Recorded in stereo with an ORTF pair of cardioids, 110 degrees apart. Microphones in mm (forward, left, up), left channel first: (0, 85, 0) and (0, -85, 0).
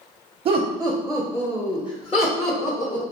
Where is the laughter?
35° right, 0.7 m; by 3.0 s 50° left, 1.3 m.